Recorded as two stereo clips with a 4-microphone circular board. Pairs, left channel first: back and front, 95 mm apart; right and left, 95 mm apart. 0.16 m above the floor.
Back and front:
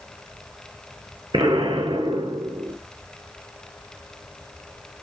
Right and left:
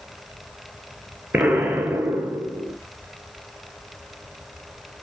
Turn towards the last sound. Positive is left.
turn(degrees=20)